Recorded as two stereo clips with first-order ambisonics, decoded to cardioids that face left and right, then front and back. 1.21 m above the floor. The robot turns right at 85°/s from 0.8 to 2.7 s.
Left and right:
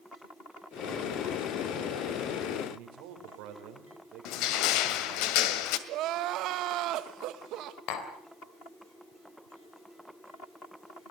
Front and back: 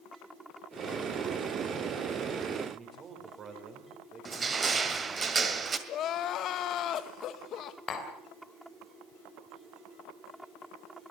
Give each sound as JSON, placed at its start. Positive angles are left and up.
{"t": 2.7, "sound": "a man speaking", "azimuth_deg": -115, "distance_m": 4.5}
{"t": 4.2, "sound": "crushing", "azimuth_deg": 105, "distance_m": 1.9}
{"t": 5.9, "sound": "crying", "azimuth_deg": -50, "distance_m": 1.2}
{"t": 7.9, "sound": "tapping", "azimuth_deg": 60, "distance_m": 3.5}